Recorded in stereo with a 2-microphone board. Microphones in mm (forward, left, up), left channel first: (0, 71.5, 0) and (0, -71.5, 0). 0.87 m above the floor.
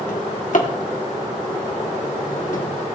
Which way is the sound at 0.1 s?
65° left (ahead or behind).